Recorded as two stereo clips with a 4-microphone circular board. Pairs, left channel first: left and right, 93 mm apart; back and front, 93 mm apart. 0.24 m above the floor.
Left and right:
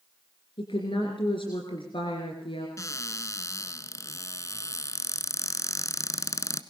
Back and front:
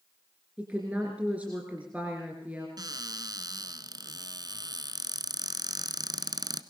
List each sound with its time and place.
0.6 s a woman speaking: 75° left, 3 m
2.8 s a cupboard door: 35° left, 1.2 m